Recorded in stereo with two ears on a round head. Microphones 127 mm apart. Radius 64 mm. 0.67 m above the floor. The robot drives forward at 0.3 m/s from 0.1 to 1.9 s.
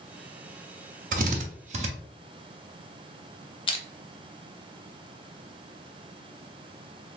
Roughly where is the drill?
Right.